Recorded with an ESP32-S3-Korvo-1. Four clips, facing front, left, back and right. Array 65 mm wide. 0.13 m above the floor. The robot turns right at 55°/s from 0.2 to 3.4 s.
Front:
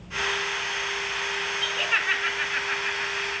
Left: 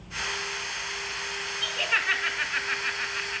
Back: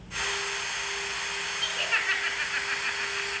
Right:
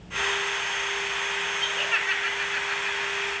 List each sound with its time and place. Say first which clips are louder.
1.6 s laughter: left 3 dB, front 2 dB; straight ahead, 1.0 m; by 3.4 s 100° left, 1.0 m